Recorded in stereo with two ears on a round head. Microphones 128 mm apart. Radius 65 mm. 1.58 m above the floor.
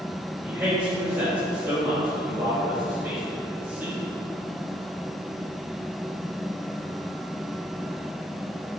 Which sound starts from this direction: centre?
A man speaking, at 0.4 s.